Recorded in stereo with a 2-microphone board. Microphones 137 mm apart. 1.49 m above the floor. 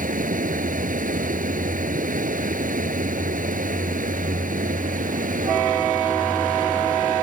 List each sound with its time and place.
0.0 s running water: 80° right